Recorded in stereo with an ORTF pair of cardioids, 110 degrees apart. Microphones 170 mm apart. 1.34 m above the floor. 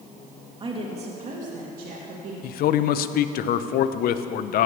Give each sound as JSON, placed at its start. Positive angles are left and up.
{"t": 0.6, "sound": "a woman speaking", "azimuth_deg": -30, "distance_m": 2.5}
{"t": 2.4, "sound": "a man speaking", "azimuth_deg": 65, "distance_m": 0.7}